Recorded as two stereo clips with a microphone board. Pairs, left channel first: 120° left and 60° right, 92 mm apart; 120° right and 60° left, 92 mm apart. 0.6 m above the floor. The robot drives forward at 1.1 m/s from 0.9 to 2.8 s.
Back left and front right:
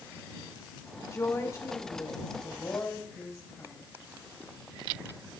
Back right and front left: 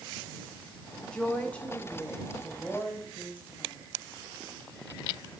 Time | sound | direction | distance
1.1 | a woman speaking | 160° left | 1.5 m